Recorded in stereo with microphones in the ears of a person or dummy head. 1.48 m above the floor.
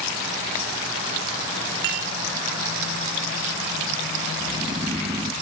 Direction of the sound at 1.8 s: 55° right (ahead or behind).